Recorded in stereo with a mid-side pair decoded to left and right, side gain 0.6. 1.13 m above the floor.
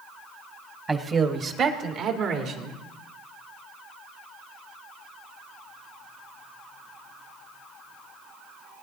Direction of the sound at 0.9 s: 25° right.